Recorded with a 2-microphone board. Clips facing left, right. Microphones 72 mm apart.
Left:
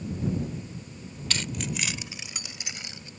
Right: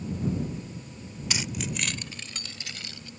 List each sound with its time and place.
1.3 s keys jangling: 10° right (ahead or behind); by 3.1 s 25° left (ahead or behind)